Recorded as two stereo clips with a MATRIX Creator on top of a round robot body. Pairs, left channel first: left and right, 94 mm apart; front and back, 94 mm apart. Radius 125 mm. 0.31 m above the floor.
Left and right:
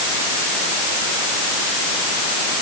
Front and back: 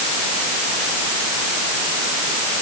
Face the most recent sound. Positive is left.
No sound to turn to.